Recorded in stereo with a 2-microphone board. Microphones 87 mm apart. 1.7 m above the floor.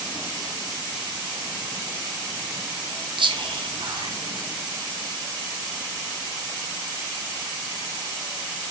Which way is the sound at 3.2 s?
65° right (ahead or behind).